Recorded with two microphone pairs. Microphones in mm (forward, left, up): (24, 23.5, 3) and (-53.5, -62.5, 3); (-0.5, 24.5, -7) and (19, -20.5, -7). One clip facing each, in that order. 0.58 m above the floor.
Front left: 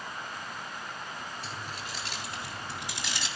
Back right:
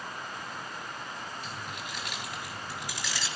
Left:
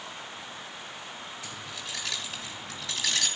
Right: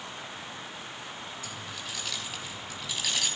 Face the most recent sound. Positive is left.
turn(degrees=120)